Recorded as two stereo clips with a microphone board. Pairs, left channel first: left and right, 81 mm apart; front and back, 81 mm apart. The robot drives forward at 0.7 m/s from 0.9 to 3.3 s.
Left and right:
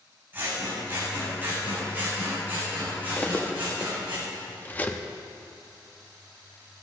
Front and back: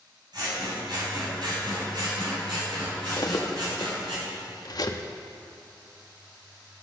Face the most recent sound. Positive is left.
turn(degrees=25)